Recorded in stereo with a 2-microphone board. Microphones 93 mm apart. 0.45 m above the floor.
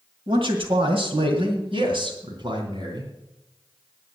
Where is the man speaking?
60° right (ahead or behind), 2 m; by 3.1 s 45° right (ahead or behind), 4 m.